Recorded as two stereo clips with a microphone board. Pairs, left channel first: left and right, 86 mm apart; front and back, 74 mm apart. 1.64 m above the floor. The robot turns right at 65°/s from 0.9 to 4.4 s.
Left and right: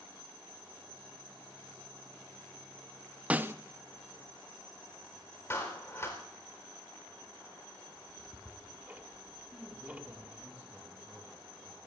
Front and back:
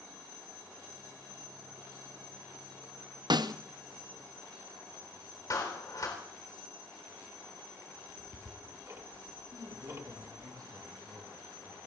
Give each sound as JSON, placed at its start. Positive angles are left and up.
{"t": 3.3, "sound": "a snare drum", "azimuth_deg": -165, "distance_m": 0.6}
{"t": 5.5, "sound": "a clap", "azimuth_deg": 35, "distance_m": 4.0}
{"t": 8.0, "sound": "ticking", "azimuth_deg": -150, "distance_m": 1.5}
{"t": 9.5, "sound": "a man speaking", "azimuth_deg": -160, "distance_m": 7.5}